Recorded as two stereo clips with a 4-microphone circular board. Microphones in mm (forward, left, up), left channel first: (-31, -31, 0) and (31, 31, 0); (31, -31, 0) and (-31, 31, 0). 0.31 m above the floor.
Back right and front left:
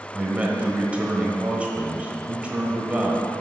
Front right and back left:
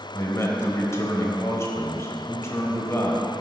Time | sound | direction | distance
0.1 | a man speaking | 20° right | 1.2 m